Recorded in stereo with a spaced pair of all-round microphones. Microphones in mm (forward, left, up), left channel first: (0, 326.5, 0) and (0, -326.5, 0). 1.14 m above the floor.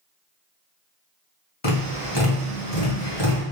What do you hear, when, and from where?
1.6 s tapping: 40° left (ahead or behind), 1.8 m